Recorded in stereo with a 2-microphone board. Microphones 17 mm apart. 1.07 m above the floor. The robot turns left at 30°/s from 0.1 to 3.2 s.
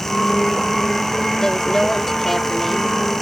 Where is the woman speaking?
35° left; by 2.9 s 10° right.